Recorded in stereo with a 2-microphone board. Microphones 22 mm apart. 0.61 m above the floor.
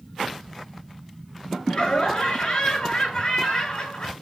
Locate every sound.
1.7 s laughter: 35° left (ahead or behind), 7 m